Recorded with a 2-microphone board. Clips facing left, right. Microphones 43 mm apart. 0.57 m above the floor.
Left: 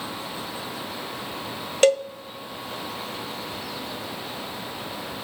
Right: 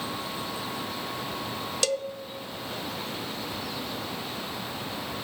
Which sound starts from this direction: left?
A cowbell, at 1.8 s.